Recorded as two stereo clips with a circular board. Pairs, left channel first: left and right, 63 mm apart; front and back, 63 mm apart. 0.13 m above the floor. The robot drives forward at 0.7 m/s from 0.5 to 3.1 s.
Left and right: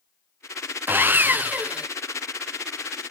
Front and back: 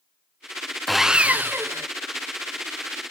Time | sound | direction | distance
0.9 | sawing | 80° right | 0.6 m